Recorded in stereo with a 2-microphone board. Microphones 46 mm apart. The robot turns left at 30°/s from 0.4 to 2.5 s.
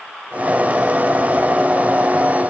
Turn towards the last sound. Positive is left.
No sound to turn to.